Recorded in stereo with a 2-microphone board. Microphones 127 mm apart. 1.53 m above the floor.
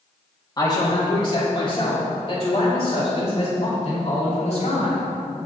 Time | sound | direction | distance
0.6 | a man speaking | 30° left (ahead or behind) | 2.5 m